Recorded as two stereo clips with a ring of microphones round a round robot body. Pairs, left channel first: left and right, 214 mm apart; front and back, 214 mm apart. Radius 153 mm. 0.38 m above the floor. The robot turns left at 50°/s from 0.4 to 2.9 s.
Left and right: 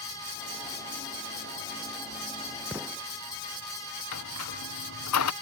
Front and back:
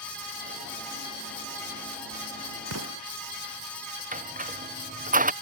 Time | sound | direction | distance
2.7 | an explosion | 170° right | ?
4.1 | a squeak | 130° left | ?